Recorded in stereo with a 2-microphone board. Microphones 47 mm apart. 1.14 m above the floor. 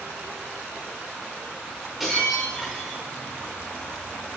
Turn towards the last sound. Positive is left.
turn(degrees=-5)  # may be behind; listen again after turning